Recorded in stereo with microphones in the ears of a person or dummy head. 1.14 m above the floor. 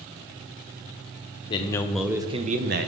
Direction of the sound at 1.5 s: 35° left (ahead or behind).